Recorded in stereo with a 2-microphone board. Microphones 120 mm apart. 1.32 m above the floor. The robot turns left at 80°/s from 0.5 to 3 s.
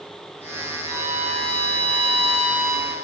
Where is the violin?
170° left, 1.7 m; by 2.9 s 5° left, 1.7 m.